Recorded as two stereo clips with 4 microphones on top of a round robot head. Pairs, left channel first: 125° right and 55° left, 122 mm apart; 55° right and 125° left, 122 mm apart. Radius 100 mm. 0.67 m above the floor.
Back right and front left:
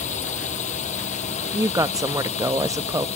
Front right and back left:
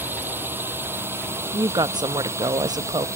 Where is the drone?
155° right; by 3.2 s 165° right.